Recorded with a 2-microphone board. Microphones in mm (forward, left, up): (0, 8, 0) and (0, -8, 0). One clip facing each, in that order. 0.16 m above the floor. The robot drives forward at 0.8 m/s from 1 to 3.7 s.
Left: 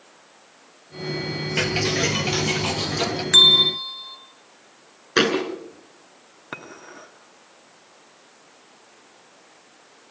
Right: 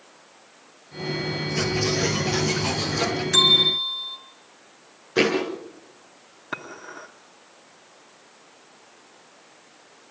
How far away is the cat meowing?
No cat meowing in this recording.